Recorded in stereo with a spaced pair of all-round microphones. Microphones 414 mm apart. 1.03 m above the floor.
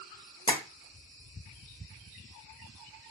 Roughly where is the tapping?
Centre.